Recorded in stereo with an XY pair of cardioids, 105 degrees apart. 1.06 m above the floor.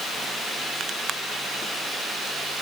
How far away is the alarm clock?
No alarm clock in this recording.